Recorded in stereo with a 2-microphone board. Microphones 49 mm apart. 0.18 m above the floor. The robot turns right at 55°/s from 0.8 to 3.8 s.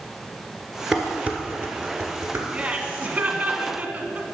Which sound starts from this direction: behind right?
Laughter, at 2.5 s.